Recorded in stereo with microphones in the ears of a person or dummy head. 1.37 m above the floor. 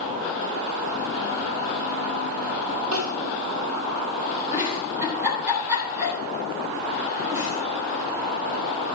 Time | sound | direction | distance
2.9 | crying | 80° right | 2 m
4.5 | a giggle | 10° right (ahead or behind) | 3.5 m